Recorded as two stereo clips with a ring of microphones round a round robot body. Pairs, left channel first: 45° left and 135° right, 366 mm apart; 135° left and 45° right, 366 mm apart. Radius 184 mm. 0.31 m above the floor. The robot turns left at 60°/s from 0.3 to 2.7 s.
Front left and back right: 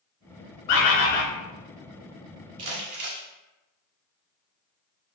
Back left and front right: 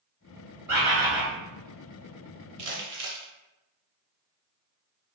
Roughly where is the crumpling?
Right.